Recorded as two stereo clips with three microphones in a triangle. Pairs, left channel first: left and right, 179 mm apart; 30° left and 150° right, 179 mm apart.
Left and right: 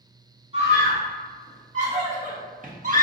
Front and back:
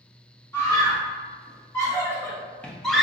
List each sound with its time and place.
0.5 s a scream: 40° right, 1.9 m; by 3.0 s 60° right, 0.7 m